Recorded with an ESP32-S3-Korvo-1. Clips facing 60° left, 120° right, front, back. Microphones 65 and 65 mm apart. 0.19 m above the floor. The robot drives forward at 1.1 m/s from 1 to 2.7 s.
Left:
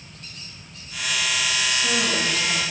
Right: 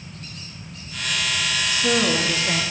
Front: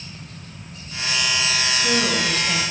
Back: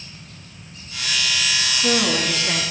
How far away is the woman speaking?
About 2.0 m.